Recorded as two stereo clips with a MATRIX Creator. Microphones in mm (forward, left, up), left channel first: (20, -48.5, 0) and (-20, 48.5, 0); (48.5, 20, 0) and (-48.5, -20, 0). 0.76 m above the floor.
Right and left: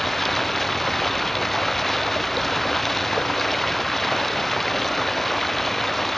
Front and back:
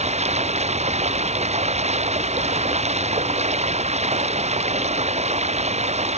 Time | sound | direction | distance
0.0 | running water | 155° right | ?